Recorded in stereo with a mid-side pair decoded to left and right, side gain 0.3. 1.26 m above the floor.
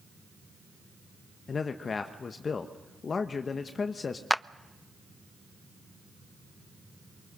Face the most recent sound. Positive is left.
turn(degrees=0)